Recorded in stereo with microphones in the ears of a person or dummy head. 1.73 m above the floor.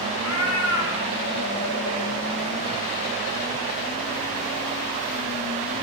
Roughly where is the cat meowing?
Left.